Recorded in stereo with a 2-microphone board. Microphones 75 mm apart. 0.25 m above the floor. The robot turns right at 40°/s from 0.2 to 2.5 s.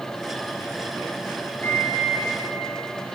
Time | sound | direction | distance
1.6 | a microwave | 35° left (ahead or behind) | 8.5 m